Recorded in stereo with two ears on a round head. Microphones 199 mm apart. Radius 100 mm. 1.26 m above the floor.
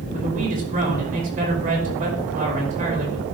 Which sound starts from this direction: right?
A man speaking, at 0.1 s.